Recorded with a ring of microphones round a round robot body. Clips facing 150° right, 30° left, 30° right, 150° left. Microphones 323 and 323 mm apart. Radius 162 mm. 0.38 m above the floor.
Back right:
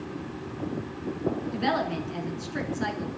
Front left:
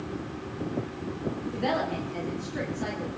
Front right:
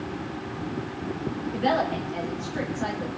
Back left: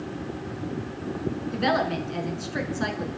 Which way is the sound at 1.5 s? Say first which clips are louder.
Back right 1 dB, even; 160° left.